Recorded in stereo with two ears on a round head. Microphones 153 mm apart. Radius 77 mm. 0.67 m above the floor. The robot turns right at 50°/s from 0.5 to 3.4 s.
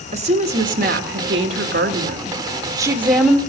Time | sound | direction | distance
0.1 | a woman speaking | 135° right | 1.8 m